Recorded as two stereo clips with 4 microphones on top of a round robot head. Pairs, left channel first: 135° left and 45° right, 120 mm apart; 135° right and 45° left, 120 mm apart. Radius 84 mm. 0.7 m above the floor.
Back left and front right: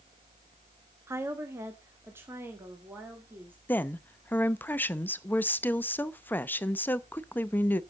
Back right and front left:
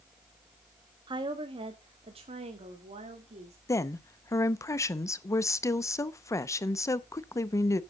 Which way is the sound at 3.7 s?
165° right.